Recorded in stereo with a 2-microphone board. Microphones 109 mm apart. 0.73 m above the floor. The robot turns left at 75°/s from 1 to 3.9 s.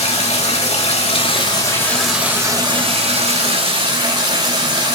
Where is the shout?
I don't hear a shout.